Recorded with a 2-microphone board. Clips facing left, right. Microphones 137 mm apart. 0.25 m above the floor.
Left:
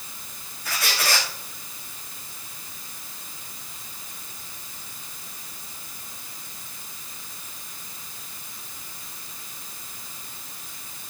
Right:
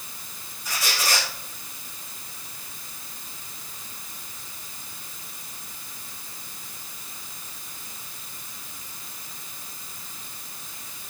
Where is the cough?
I don't hear a cough.